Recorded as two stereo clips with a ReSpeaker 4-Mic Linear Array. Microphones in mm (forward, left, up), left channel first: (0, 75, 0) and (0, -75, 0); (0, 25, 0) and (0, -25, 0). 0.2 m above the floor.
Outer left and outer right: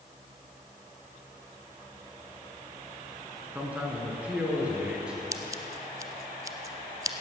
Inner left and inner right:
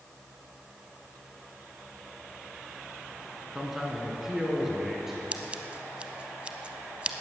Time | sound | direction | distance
3.5 | a man speaking | 10° right (ahead or behind) | 2.5 m
5.3 | scissors | 25° right (ahead or behind) | 0.9 m